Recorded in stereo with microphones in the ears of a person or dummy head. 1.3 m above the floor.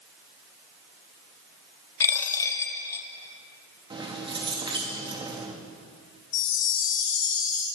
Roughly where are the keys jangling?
Right.